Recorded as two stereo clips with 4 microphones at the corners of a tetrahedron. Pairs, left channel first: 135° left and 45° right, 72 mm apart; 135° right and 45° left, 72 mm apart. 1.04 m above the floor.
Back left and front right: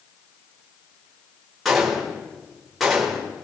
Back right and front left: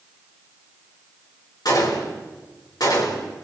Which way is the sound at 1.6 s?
135° right.